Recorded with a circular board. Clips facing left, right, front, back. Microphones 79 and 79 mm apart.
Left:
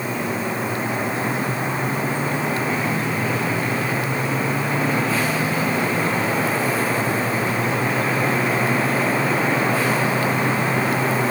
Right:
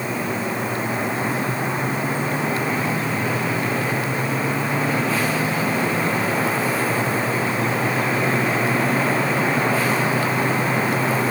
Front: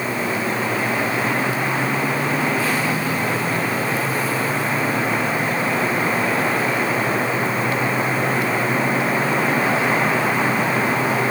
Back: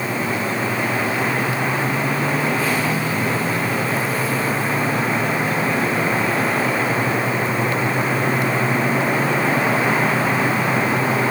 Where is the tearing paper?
I don't hear tearing paper.